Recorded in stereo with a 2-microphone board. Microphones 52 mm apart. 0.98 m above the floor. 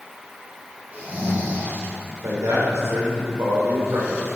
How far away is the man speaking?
About 4 m.